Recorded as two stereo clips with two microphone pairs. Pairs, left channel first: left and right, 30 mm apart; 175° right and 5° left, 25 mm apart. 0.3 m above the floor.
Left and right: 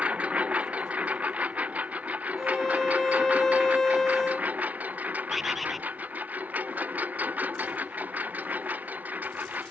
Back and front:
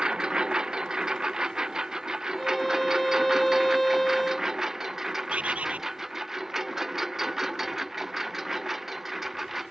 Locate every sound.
0.0 s a lawn mower: 45° right; by 9.7 s 70° right
2.4 s a violin: 125° left
5.3 s a bird: 5° right